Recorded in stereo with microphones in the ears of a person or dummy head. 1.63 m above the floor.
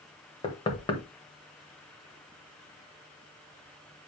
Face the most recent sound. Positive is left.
turn(degrees=25)  # may be behind; listen again after turning